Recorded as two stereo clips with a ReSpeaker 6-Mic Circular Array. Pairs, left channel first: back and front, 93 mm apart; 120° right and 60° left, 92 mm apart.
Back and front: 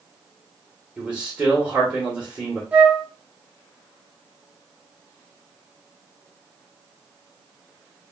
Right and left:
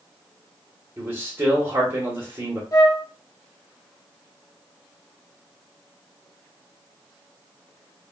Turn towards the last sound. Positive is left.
turn(degrees=-75)